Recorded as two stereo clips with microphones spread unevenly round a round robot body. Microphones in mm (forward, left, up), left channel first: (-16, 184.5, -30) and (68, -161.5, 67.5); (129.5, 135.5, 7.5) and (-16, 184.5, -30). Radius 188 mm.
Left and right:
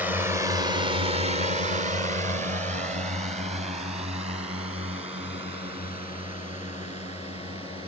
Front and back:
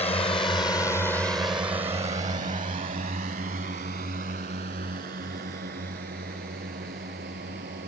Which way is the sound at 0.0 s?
25° left.